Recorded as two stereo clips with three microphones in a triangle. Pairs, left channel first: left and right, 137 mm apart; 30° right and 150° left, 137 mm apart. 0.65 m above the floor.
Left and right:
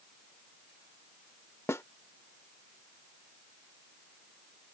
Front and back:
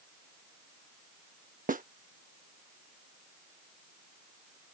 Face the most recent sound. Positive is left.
turn(degrees=160)